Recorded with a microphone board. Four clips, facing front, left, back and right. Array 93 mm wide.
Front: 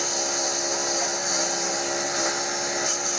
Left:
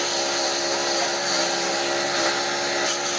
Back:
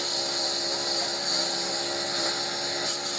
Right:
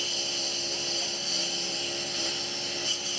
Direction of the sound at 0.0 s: 75° left.